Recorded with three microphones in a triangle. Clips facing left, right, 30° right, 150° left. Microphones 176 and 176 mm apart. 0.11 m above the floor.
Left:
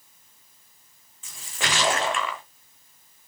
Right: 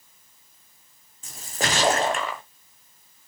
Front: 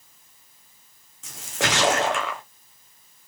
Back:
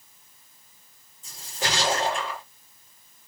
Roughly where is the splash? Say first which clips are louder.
Right 4 dB, front 4 dB; ahead right.